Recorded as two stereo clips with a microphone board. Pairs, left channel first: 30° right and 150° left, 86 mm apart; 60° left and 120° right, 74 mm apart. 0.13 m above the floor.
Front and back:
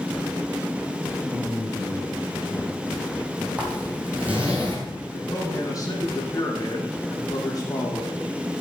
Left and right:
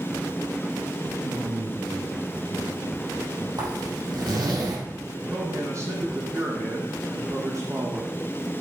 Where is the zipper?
135° right, 4 m.